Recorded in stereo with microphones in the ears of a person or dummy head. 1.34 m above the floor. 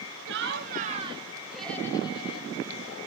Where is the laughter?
55° right (ahead or behind), 0.8 m; by 3.0 s 45° left (ahead or behind), 1.2 m.